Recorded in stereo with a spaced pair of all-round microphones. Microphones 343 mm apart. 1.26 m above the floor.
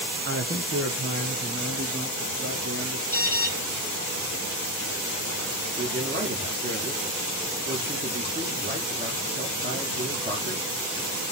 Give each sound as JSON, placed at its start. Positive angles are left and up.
{"t": 0.2, "sound": "a man speaking", "side_deg": -35, "distance_m": 0.7}
{"t": 3.1, "sound": "an alarm", "side_deg": -25, "distance_m": 3.5}
{"t": 5.8, "sound": "a man speaking", "side_deg": -25, "distance_m": 1.9}